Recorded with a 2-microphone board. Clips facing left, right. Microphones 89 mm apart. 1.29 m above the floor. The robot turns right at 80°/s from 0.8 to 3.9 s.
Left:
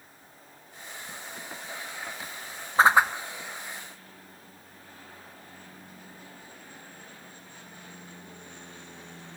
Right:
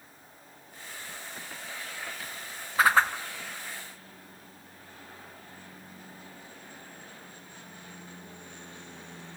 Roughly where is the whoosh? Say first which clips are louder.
Left 3 dB; left.